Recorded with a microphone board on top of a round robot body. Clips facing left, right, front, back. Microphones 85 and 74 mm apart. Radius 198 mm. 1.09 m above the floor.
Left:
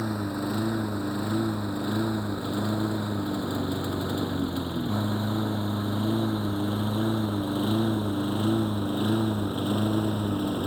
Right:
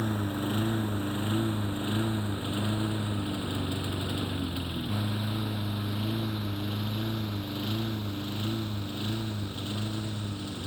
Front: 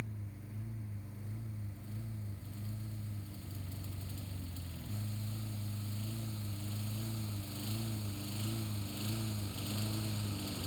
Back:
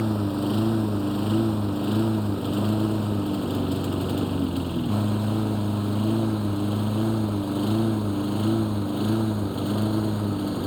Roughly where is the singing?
I don't hear singing.